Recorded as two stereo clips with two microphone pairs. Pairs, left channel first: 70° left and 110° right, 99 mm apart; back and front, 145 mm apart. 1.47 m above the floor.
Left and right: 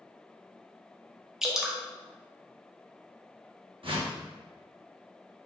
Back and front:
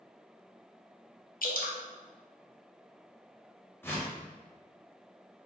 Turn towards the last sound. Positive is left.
turn(degrees=-110)